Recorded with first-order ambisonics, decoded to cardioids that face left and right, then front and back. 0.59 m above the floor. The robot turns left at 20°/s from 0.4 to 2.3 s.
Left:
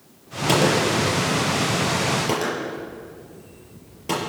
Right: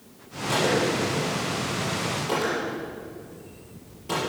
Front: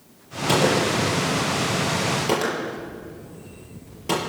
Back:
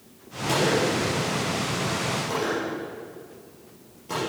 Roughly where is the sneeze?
I don't hear a sneeze.